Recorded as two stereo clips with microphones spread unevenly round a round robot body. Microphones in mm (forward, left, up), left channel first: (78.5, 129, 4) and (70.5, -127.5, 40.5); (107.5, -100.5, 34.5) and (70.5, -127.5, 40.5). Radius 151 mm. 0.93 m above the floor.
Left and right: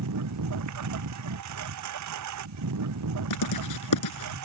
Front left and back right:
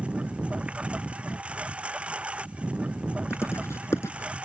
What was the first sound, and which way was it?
A lawn mower, 80° right.